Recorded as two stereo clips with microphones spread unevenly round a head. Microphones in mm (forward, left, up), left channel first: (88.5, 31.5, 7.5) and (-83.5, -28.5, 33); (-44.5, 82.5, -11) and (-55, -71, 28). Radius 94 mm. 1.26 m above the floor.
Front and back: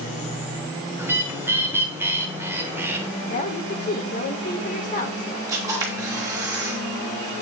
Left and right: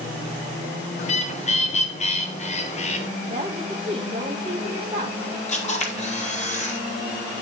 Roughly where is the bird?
Behind left.